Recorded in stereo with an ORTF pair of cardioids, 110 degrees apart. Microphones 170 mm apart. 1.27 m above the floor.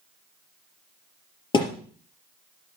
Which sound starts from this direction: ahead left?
A thud, at 1.5 s.